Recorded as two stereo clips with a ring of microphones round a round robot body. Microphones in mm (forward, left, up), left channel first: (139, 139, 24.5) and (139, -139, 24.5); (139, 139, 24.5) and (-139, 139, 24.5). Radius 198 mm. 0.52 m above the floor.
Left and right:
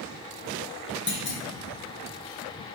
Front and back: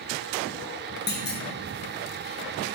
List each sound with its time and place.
1.1 s a clunk: 50° left, 0.8 m